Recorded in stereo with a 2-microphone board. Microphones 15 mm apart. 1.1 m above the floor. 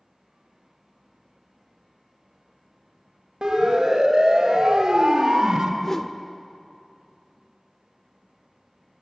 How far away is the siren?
About 6 m.